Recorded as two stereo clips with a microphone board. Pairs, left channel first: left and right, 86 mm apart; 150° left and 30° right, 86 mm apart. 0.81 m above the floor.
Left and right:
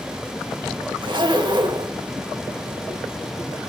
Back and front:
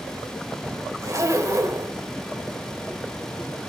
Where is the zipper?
80° right, 0.9 m.